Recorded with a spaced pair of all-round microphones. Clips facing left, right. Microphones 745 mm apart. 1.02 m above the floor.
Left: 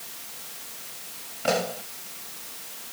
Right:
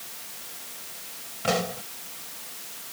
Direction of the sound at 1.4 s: 35° right (ahead or behind).